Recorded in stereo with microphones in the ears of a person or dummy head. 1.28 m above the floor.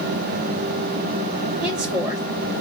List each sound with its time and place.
1.6 s a woman speaking: 5° right (ahead or behind), 0.9 m